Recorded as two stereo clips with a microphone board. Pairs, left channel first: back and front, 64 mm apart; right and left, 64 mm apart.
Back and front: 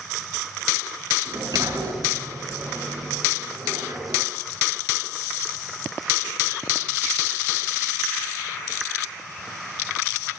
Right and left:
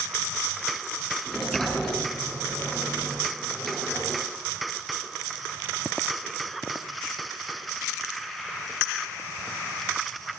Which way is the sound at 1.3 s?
Straight ahead.